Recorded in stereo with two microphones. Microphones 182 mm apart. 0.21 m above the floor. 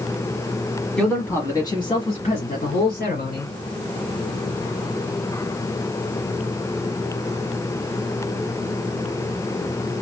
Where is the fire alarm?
I don't hear a fire alarm.